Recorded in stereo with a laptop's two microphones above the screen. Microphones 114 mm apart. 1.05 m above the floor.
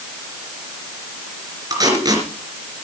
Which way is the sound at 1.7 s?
35° right (ahead or behind).